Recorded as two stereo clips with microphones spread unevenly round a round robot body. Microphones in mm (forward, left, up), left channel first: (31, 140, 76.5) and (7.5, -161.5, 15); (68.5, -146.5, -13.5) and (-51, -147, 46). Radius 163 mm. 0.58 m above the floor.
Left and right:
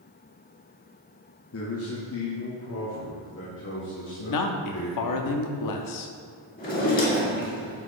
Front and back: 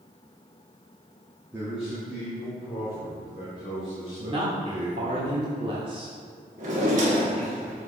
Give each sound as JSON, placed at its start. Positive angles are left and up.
{"t": 1.5, "sound": "a man speaking", "azimuth_deg": 70, "distance_m": 1.1}
{"t": 4.2, "sound": "a man speaking", "azimuth_deg": 105, "distance_m": 0.9}
{"t": 6.6, "sound": "a drawer", "azimuth_deg": 150, "distance_m": 1.4}